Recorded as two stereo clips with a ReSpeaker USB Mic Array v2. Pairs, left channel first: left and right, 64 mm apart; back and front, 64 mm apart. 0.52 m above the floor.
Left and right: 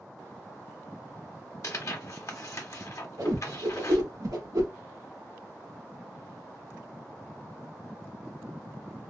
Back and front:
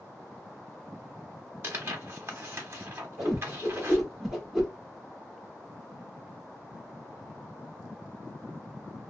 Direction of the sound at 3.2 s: 85° right.